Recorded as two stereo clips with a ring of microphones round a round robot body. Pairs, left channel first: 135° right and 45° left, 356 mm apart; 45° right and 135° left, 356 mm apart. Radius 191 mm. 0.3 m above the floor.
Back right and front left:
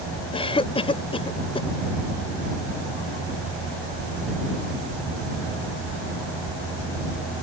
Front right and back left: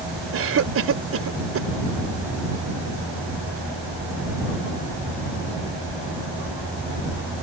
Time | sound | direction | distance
0.3 | a cough | 160° left | ?